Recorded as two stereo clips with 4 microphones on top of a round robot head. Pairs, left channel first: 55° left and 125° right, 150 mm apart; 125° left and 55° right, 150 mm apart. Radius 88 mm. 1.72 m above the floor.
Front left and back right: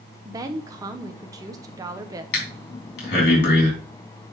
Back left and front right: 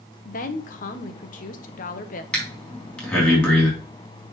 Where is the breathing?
40° left, 3 m.